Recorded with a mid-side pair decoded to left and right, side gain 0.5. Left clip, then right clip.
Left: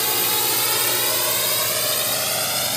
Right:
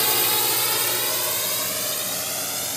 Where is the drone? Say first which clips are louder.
Even; 10° right; by 2.8 s 45° left.